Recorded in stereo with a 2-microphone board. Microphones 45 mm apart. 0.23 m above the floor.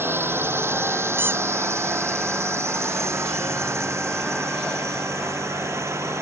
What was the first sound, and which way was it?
A drone, 60° right (ahead or behind).